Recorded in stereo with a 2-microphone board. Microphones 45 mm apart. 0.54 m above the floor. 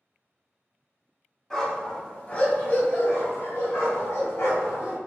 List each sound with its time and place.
1.5 s a dog barking: 10° left (ahead or behind), 1.2 m; by 5.0 s 85° left, 1.9 m